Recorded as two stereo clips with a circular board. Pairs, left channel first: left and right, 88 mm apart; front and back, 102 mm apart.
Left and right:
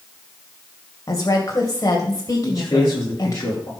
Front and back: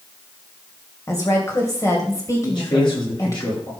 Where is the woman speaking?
50° left, 2.0 m.